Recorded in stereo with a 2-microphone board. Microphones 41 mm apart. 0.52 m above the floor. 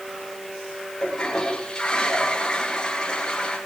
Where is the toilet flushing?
20° left (ahead or behind), 9.5 m.